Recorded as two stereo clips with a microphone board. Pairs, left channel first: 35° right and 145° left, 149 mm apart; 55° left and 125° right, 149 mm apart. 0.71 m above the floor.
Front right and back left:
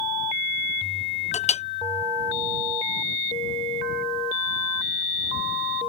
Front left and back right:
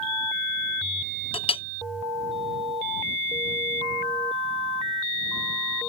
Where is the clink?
5° left.